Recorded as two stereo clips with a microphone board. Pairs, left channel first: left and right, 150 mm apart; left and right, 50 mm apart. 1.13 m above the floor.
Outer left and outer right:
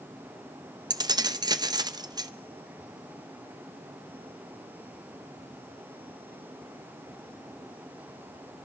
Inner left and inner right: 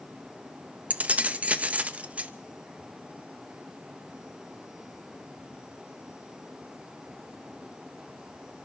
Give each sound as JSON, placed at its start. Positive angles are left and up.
{"t": 0.9, "sound": "keys jangling", "side_deg": -25, "distance_m": 0.5}